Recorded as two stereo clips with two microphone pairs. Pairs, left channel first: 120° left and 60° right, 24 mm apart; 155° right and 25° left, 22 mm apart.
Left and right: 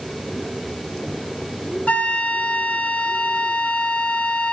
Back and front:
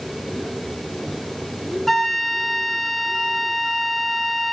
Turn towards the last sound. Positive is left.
turn(degrees=120)